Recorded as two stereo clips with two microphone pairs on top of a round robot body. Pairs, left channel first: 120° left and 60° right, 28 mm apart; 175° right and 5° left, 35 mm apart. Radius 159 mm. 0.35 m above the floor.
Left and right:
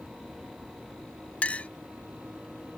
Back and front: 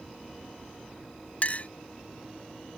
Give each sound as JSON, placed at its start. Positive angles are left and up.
{"t": 1.4, "sound": "a clink", "azimuth_deg": 160}